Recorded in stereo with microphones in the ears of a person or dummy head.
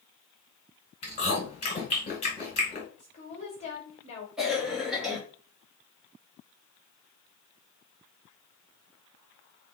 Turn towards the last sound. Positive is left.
turn(degrees=0)  # may be behind; listen again after turning